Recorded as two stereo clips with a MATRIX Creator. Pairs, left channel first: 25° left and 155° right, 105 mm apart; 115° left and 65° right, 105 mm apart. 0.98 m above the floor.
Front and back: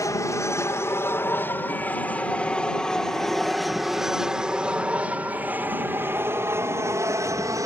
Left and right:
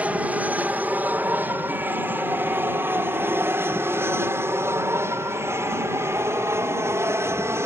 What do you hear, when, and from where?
0.0 s an aircraft: 5° right; by 7.7 s 120° right